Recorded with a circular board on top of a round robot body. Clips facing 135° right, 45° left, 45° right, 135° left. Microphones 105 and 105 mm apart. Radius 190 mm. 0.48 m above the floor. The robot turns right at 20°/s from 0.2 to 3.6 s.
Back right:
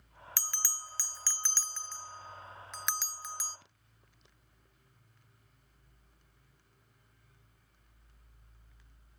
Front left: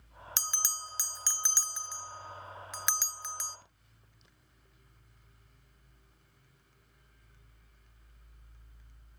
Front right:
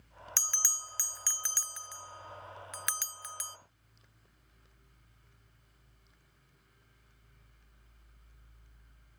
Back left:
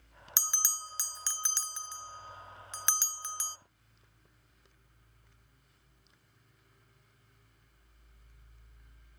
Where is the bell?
80° left, 0.6 m; by 3.6 s 145° left, 0.6 m.